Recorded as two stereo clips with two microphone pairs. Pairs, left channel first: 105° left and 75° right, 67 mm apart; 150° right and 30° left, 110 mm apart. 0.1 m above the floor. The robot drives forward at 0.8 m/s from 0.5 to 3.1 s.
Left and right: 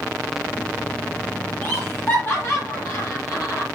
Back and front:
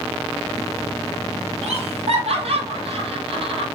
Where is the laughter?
45° left, 3.5 m; by 3.6 s 60° left, 3 m.